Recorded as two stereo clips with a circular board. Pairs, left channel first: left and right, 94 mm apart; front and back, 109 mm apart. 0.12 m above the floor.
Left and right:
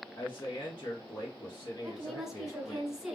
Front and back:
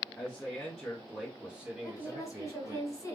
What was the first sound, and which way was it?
A man speaking, 60° left.